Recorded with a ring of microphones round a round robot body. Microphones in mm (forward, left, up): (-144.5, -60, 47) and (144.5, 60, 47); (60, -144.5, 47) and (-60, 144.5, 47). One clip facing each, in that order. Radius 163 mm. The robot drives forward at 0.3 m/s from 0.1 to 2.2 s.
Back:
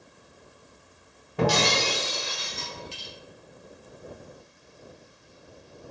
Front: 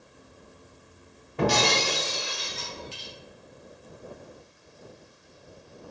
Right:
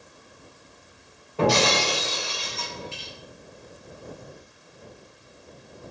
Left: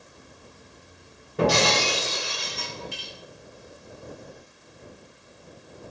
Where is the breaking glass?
175° right, 0.8 m.